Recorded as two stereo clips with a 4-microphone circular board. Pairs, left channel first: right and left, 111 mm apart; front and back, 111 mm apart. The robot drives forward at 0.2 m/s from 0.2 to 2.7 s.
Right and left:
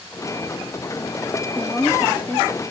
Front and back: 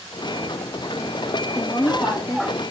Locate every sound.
1.6 s a woman speaking: 10° right, 1.1 m; by 2.6 s 15° right, 1.0 m